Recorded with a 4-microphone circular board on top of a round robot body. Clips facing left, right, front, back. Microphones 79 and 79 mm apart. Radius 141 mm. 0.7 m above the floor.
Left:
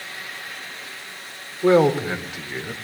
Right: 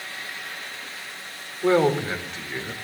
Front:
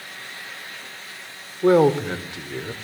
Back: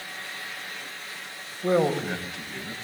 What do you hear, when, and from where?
1.6 s a man speaking: 15° left, 3.5 m; by 2.7 s 5° left, 3.5 m